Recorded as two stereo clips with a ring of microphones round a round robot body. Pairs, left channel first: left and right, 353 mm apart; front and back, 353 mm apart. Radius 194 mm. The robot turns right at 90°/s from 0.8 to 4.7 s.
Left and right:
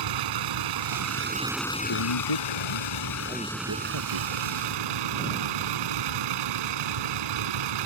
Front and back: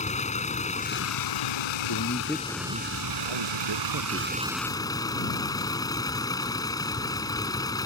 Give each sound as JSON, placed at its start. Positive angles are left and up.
{"t": 0.0, "sound": "a vehicle", "azimuth_deg": -70}
{"t": 1.9, "sound": "a man speaking", "azimuth_deg": 50}